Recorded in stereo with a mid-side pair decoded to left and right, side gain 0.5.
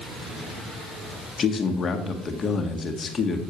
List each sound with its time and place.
1.4 s a man speaking: 40° left, 1.8 m